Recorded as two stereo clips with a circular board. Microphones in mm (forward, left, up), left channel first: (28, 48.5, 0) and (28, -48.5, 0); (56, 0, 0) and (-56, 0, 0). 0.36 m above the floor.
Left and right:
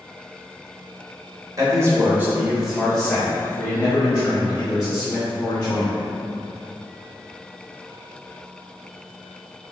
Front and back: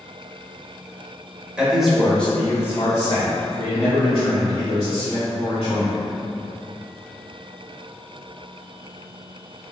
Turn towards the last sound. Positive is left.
turn(degrees=40)